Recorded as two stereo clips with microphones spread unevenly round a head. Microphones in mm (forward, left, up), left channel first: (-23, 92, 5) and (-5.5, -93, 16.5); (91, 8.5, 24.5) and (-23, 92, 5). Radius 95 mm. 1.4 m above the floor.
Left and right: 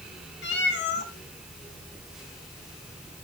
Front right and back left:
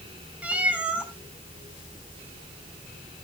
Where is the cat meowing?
60° left, 4 m.